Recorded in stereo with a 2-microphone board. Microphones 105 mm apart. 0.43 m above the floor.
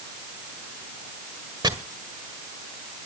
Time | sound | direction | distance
1.6 | chopping | 40° right (ahead or behind) | 1.8 m